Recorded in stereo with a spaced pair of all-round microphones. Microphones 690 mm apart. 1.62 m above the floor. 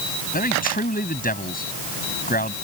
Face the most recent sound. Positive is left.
turn(degrees=10)  # may be behind; listen again after turning